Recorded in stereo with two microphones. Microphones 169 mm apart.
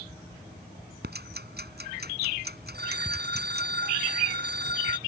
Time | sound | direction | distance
1.0 | ticking | 70° right (ahead or behind) | ?
2.7 | a phone ringing | 75° right (ahead or behind) | ?